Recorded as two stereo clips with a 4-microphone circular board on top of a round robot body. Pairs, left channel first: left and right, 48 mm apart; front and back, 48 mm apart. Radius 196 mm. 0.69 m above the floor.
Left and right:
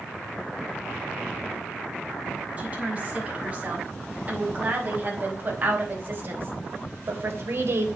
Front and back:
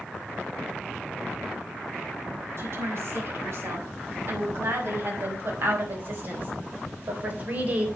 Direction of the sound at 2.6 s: 150° right.